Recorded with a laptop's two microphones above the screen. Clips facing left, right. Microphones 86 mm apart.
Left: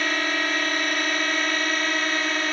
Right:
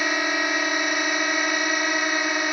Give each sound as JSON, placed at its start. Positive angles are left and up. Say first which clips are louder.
{"t": 0.0, "sound": "a drone", "louder": "right 1 dB", "side_deg": -15}